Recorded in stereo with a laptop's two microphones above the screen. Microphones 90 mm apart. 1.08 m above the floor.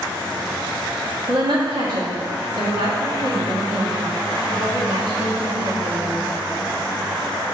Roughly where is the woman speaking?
Right.